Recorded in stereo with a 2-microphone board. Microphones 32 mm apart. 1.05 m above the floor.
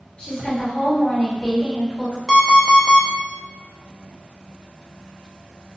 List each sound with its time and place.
0.2 s a woman speaking: 35° left (ahead or behind), 1.3 m
2.3 s an alarm clock: 5° right (ahead or behind), 0.5 m